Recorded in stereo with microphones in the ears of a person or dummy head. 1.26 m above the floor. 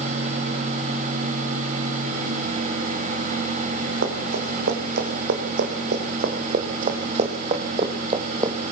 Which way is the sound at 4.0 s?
65° right (ahead or behind).